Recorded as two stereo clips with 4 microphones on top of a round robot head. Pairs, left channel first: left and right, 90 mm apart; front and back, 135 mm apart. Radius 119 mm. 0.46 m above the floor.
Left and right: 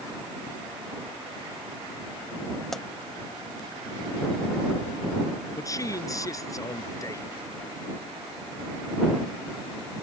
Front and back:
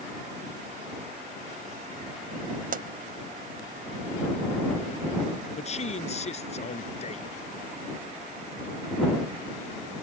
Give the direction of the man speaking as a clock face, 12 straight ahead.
11 o'clock.